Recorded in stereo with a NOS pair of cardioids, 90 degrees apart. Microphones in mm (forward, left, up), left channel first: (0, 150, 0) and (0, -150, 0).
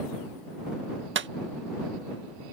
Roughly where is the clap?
Ahead right.